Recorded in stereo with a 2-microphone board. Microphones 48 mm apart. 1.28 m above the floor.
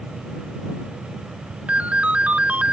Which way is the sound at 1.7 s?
35° right (ahead or behind).